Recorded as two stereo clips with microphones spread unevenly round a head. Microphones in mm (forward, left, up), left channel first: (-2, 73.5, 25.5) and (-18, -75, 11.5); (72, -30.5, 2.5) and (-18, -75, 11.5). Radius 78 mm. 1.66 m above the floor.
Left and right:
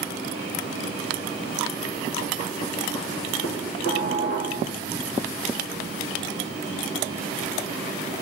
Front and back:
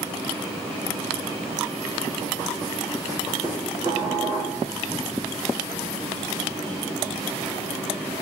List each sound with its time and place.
3.4 s dishes clattering: 90° left, 3.5 m